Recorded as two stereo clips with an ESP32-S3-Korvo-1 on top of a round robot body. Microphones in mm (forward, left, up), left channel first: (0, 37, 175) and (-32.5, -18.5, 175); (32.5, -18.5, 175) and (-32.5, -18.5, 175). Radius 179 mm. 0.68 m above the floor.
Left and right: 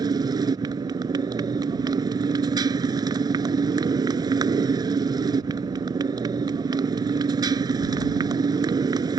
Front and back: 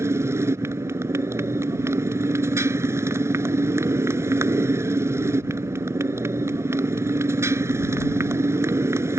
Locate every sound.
0.0 s a motorcycle: 130° right